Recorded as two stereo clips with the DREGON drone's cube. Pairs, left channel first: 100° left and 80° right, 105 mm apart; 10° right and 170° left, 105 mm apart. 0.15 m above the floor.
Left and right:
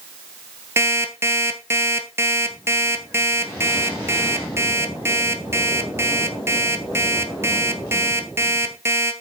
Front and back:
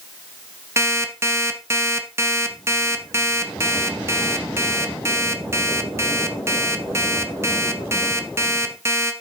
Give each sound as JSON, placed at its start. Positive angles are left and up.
{"t": 0.8, "sound": "an alarm clock", "azimuth_deg": -135, "distance_m": 1.2}